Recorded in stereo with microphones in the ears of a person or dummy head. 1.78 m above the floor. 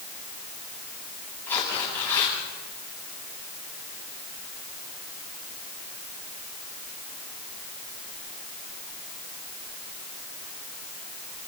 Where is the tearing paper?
15° left (ahead or behind), 9.5 m.